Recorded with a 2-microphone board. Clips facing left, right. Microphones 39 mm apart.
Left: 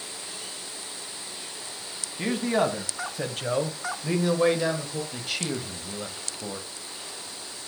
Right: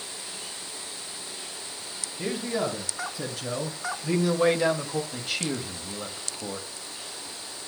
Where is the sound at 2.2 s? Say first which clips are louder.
Left 4 dB; 65° left (ahead or behind), 2.5 m; by 5.0 s 30° right (ahead or behind), 1.3 m.